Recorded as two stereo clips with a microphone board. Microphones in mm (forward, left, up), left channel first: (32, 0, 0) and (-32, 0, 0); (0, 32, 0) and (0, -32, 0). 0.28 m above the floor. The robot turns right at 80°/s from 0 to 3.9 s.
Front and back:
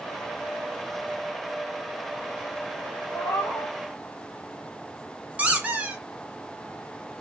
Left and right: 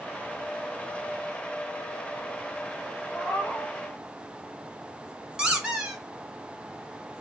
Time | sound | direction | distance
3.1 | a cat meowing | 20° left | 1.3 m
5.4 | a squeak | 150° right | 0.7 m